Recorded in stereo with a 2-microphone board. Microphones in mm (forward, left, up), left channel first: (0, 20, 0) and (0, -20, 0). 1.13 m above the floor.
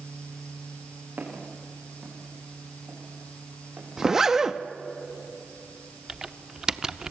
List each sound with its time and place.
1.2 s footsteps: 50° right (ahead or behind), 8 m; by 3.9 s 60° right (ahead or behind), 11 m
4.0 s a zipper: 15° right (ahead or behind), 0.9 m
6.1 s typing on a keyboard: 15° right (ahead or behind), 0.7 m